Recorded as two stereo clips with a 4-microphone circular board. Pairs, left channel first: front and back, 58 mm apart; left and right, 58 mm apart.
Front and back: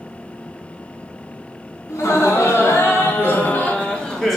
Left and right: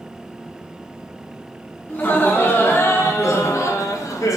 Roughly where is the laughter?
Ahead left.